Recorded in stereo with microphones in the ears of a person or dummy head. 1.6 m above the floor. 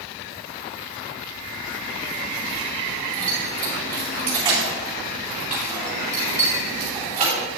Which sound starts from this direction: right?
Keys jangling, at 3.1 s.